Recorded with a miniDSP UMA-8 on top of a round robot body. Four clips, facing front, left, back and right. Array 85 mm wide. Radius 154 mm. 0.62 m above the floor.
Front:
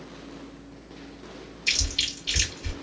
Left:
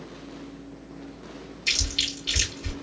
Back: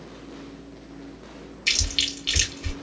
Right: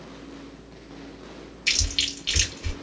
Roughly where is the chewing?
Behind right.